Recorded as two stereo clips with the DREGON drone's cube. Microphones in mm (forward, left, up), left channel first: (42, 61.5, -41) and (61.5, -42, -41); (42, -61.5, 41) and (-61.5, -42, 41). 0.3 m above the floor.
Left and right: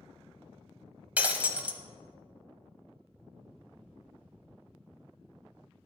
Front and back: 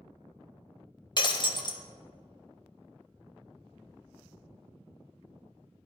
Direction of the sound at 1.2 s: 10° right.